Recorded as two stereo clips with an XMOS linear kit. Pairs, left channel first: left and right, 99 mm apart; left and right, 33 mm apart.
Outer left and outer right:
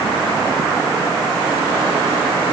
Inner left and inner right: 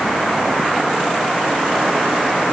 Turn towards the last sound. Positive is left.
No sound to turn to.